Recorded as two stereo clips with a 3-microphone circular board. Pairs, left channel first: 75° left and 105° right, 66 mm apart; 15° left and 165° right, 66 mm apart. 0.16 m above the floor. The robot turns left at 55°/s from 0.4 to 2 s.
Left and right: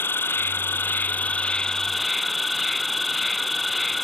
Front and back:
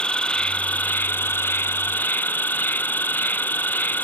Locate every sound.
0.0 s an insect: 75° left; by 4.0 s 15° right